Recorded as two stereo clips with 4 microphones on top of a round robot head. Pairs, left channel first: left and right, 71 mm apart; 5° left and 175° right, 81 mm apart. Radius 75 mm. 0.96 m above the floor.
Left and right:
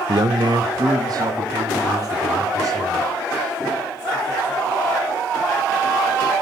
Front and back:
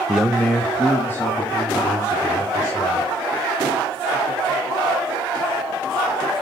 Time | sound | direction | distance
0.1 | a man speaking | 95° right | 0.5 m